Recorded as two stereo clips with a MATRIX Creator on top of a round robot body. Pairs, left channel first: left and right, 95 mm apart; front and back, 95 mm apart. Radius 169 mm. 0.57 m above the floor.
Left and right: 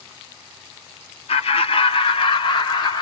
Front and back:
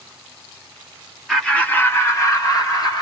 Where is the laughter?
90° left, 2.0 m; by 3.0 s 50° left, 4 m.